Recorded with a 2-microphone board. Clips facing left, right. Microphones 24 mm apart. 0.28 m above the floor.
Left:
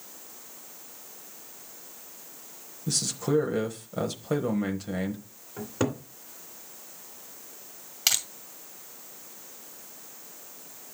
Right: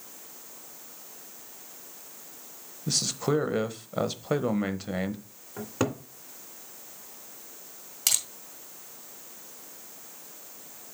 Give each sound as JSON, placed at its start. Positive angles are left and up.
{"t": 2.9, "sound": "a man speaking", "side_deg": -20, "distance_m": 0.9}
{"t": 5.6, "sound": "a cupboard door", "side_deg": -20, "distance_m": 2.0}
{"t": 8.1, "sound": "crushing", "side_deg": 20, "distance_m": 1.8}